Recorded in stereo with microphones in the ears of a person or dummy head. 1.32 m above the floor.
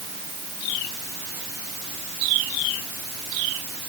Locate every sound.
Only background noise.